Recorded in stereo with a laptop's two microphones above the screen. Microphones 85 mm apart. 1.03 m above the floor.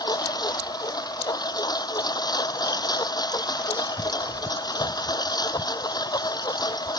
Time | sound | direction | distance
0.0 | a lawn mower | 50° left (ahead or behind) | ?